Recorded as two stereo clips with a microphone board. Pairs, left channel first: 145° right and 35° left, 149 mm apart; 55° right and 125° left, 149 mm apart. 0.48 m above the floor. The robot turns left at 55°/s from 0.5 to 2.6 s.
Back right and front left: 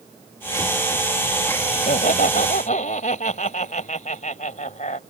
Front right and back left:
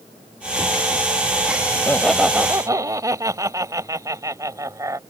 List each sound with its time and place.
1.7 s laughter: 120° right; by 5.0 s 170° right